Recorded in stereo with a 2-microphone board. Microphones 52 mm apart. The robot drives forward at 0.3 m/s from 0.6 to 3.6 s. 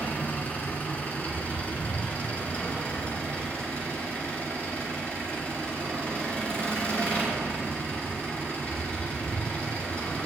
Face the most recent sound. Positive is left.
turn(degrees=20)  # may be behind; listen again after turning